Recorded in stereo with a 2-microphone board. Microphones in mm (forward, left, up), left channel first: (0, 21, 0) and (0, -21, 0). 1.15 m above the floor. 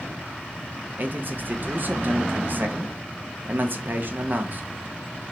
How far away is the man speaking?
About 0.6 m.